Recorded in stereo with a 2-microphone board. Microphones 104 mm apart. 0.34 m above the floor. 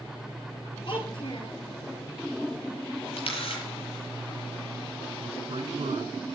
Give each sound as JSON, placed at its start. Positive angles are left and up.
{"t": 0.9, "sound": "a child speaking", "side_deg": 55, "distance_m": 6.0}
{"t": 3.2, "sound": "a camera shutter", "side_deg": 70, "distance_m": 9.0}
{"t": 5.2, "sound": "a man speaking", "side_deg": -65, "distance_m": 5.0}